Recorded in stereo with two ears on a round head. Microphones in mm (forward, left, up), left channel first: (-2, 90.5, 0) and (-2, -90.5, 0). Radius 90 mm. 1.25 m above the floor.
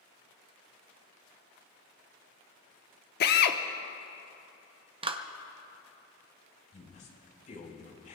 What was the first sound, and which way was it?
A drill, 50° left (ahead or behind).